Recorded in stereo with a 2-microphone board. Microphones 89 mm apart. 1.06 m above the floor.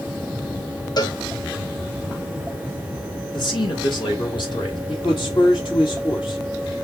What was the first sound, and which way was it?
A cowbell, 50° left (ahead or behind).